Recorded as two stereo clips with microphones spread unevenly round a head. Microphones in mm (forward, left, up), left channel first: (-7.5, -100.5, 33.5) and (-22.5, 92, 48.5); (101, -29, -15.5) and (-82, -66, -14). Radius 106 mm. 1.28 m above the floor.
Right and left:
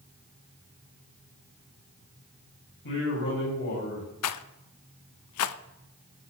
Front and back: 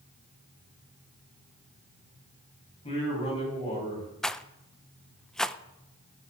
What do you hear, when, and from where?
2.8 s a man speaking: 50° right, 9 m; by 4.1 s 45° right, 8.5 m
4.2 s a rattle: 75° right, 0.6 m